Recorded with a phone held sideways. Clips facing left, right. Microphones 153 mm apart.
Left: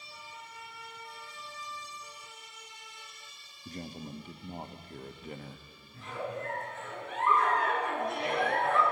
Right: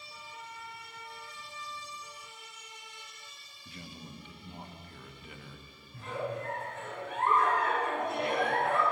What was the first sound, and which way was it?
A man speaking, 40° left (ahead or behind).